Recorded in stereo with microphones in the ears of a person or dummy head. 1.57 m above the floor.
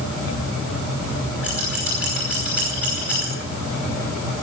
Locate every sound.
1.4 s scissors: centre (ahead or behind), 5 m